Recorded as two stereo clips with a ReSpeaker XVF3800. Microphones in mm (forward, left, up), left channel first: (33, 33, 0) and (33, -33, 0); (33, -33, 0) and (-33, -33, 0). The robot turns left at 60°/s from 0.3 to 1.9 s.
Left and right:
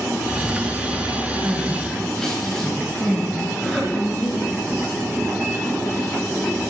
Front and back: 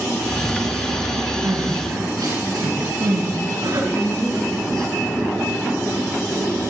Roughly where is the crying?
Behind.